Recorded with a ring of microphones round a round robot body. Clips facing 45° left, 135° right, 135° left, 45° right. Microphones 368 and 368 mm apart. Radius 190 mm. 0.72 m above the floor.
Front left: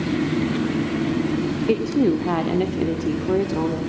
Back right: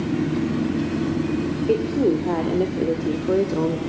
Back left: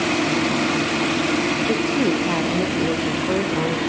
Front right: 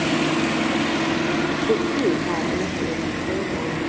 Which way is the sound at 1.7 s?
85° left.